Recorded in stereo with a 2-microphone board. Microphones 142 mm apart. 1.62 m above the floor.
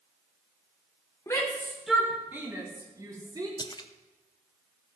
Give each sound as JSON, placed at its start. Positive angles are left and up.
{"t": 1.3, "sound": "a shout", "side_deg": 20, "distance_m": 1.4}
{"t": 3.6, "sound": "a splash", "side_deg": 30, "distance_m": 0.8}